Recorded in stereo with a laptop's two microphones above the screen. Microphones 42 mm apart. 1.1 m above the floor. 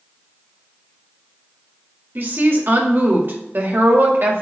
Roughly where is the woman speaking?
Right.